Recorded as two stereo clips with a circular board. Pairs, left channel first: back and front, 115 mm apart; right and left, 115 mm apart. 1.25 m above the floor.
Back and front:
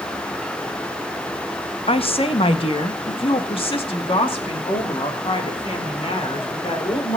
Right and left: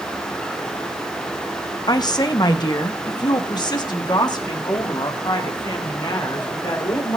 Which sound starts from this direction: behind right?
A woman speaking, at 1.9 s.